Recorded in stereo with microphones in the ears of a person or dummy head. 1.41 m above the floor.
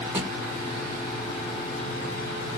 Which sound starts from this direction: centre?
A drawer, at 0.1 s.